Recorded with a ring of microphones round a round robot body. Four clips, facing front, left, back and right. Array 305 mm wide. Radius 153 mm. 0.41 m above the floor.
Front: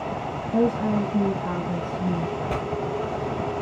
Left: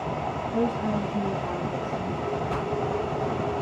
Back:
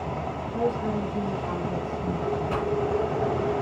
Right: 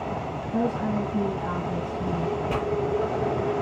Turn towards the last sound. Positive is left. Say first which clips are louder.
# right 2 dB, back 1 dB
turn(degrees=-50)